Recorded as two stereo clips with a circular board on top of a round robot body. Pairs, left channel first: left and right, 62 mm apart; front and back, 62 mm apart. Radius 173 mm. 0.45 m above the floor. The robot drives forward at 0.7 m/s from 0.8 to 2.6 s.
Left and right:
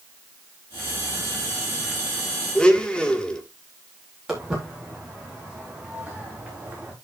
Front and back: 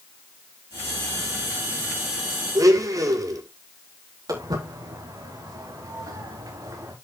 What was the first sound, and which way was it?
A blender, 165° left.